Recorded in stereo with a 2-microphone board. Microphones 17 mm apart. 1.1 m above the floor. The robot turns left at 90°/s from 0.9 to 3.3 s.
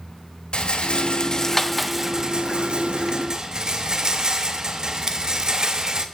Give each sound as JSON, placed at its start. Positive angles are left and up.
{"t": 0.5, "sound": "a rattle", "azimuth_deg": 75, "distance_m": 1.1}